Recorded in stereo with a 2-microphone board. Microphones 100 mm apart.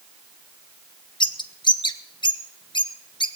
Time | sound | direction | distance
1.2 | a bird | 50° left (ahead or behind) | 0.8 m